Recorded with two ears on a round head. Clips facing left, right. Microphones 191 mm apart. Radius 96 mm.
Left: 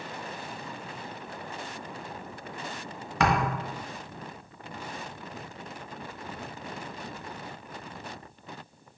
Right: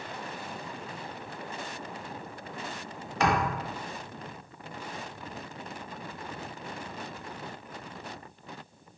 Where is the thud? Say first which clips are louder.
Left 1 dB; 65° left (ahead or behind), 1.6 m.